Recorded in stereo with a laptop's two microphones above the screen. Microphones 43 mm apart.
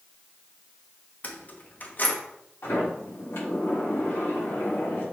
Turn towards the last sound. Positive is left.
turn(degrees=80)